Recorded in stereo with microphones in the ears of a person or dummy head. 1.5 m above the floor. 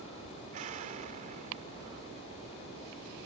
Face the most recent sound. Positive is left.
turn(degrees=-40)  # may be behind; listen again after turning